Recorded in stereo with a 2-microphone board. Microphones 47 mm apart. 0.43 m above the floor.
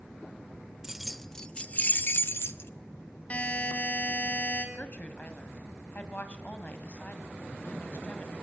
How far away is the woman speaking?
About 2.5 m.